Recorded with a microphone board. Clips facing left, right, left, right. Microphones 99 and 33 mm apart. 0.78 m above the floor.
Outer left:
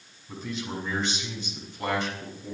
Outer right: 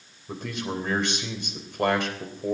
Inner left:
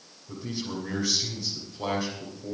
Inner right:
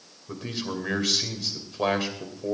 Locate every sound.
0.3 s a man speaking: 65° right (ahead or behind), 3 m